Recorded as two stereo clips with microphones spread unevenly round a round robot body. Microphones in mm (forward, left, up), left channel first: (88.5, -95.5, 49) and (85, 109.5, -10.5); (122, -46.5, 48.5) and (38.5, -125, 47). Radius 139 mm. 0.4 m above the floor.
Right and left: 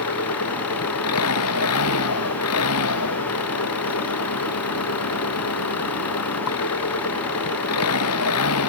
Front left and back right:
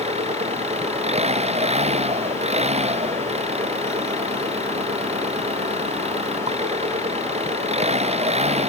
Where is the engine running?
110° right.